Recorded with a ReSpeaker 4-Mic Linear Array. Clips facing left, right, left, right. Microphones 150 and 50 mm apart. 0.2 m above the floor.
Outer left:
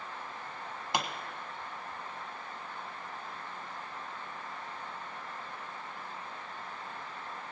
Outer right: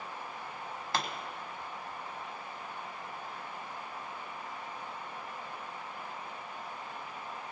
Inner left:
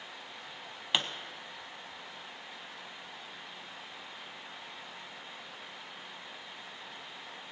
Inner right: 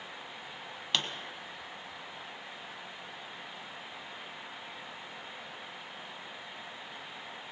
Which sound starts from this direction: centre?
A pop, at 0.9 s.